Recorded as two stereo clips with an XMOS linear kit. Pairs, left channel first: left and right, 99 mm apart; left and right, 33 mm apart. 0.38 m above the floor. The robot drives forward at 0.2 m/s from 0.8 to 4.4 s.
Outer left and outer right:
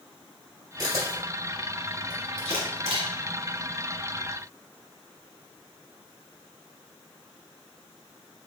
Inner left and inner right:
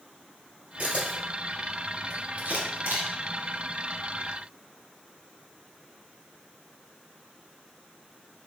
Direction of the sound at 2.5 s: 80° right.